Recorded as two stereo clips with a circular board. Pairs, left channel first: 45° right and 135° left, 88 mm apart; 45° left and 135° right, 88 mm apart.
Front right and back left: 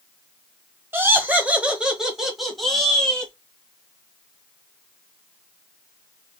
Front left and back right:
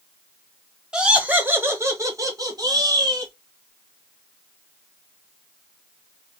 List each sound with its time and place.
0.9 s laughter: 155° left, 1.1 m; by 3.3 s 125° right, 1.6 m